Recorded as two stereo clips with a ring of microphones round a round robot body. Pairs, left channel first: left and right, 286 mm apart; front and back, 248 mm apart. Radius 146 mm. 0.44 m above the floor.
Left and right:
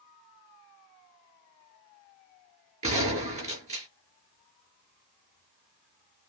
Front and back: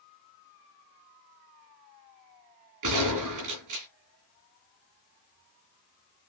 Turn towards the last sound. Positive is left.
turn(degrees=-160)